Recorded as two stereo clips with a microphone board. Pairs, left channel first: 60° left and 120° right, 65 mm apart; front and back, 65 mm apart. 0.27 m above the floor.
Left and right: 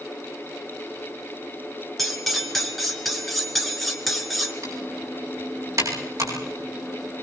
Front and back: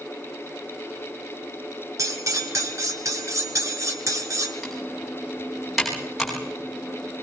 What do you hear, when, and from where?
2.0 s cutlery clinking: 150° left, 2.5 m
4.6 s typing on a keyboard: 90° right, 9.5 m